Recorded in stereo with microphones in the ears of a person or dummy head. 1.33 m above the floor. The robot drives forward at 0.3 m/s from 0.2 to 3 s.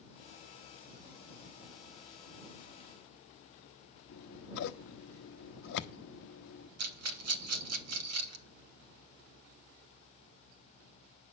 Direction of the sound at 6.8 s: 75° right (ahead or behind).